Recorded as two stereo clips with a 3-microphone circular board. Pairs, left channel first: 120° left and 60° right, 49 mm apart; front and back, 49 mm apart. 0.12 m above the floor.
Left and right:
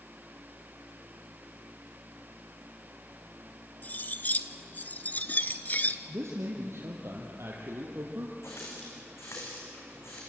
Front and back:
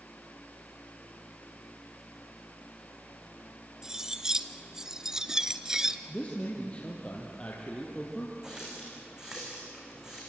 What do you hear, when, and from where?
3.8 s cutlery clinking: 110° left, 0.9 m
6.1 s a man speaking: 65° right, 3.5 m
8.4 s a running tap: 105° left, 6.5 m